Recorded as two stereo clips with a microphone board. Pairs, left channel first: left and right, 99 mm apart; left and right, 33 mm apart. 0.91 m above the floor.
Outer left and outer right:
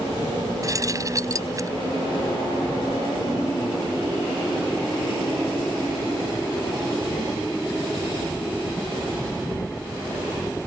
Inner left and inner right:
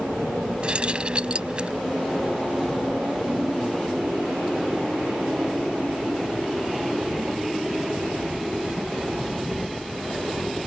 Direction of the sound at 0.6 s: 35° right (ahead or behind).